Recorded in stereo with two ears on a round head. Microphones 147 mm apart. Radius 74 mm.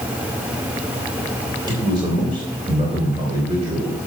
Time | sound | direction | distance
1.7 | a man speaking | 30° right (ahead or behind) | 3 m